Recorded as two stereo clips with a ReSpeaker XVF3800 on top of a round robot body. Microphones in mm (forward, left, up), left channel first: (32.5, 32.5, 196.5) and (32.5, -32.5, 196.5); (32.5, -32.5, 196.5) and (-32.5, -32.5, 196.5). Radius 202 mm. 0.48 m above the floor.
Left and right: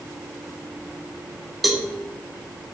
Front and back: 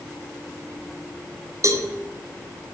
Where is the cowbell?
175° right, 1.3 m.